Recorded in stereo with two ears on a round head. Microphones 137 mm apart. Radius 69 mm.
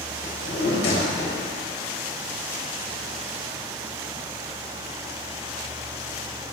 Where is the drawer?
80° left, 3.5 m.